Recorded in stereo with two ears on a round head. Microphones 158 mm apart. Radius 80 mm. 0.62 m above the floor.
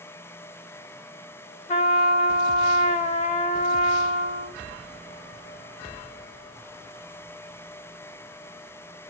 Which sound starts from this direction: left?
A trumpet, at 1.7 s.